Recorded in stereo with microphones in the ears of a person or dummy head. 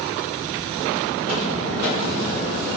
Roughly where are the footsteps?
Right.